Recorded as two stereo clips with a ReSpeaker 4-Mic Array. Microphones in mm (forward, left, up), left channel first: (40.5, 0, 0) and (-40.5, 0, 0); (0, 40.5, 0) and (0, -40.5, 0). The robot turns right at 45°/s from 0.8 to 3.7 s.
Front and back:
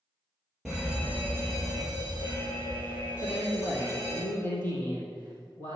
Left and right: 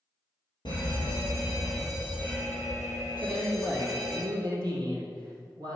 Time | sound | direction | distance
0.7 | an alarm | 100° left | 5 m
3.2 | a man speaking | 85° right | 3.5 m